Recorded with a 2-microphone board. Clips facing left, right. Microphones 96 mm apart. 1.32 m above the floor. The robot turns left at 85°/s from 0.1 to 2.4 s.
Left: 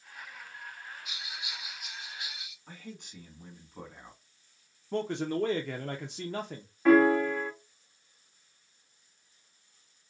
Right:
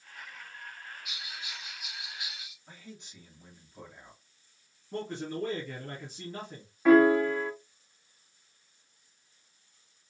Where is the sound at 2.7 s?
60° left (ahead or behind), 2 m.